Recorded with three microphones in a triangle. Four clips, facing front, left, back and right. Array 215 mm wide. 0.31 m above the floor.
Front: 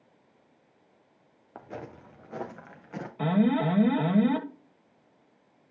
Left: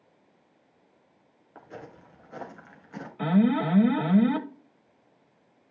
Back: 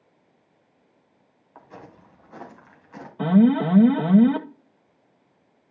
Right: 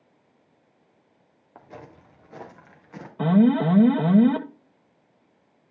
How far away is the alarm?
About 0.9 m.